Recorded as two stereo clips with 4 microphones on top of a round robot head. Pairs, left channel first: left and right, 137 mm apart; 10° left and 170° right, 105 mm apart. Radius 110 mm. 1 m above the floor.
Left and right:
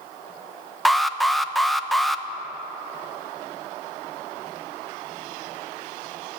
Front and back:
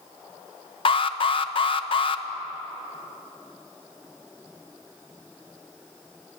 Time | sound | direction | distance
0.8 | an alarm | straight ahead | 1.0 m